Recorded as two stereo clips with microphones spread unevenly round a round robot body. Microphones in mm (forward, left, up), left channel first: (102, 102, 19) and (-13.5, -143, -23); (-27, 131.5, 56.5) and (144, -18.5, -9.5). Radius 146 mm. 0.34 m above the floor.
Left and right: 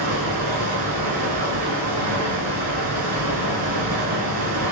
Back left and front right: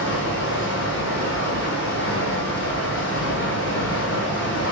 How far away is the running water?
About 0.9 m.